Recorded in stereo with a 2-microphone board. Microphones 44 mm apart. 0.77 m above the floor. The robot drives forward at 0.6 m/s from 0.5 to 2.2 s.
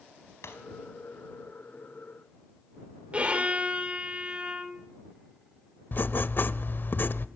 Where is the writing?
50° left (ahead or behind), 0.7 m.